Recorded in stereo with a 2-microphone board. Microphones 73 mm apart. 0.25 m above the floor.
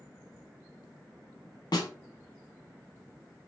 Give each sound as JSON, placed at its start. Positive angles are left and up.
{"t": 1.7, "sound": "a snare drum", "side_deg": 70, "distance_m": 0.6}